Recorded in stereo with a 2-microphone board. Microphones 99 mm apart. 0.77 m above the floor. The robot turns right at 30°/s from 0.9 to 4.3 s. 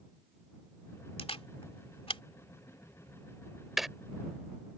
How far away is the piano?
No piano in this recording.